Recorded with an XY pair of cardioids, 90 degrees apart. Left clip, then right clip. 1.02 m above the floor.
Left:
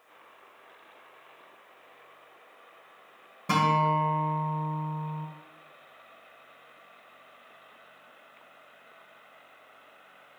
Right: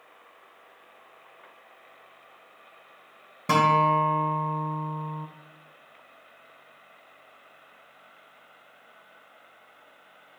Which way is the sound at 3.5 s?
45° right.